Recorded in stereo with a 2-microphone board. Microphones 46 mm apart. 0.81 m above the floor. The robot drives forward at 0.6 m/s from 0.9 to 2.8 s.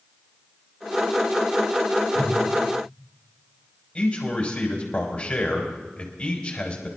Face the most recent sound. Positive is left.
turn(degrees=25)  # may be behind; listen again after turning